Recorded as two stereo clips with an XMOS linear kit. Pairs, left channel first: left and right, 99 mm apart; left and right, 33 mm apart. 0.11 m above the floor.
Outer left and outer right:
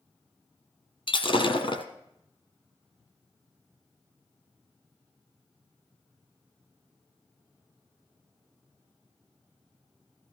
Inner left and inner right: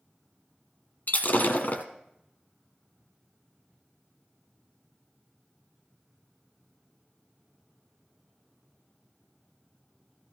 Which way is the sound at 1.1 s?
60° left (ahead or behind).